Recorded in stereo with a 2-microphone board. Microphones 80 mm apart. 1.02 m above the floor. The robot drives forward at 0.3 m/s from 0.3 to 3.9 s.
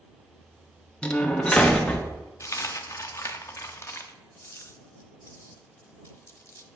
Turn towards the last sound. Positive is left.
turn(degrees=35)  # may be behind; listen again after turning